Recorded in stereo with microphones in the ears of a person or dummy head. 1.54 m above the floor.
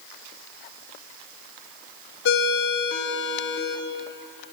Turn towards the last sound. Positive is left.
turn(degrees=70)  # may be behind; listen again after turning